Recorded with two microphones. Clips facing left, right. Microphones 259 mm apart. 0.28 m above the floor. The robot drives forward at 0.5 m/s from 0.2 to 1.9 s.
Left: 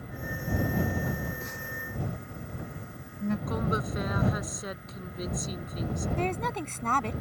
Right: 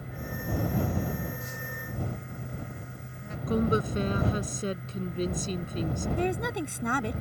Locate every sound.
1.0 s a phone buzzing: 70° left (ahead or behind); by 3.4 s 60° left (ahead or behind)
3.5 s a woman speaking: 30° right (ahead or behind)
6.2 s a woman speaking: 10° right (ahead or behind)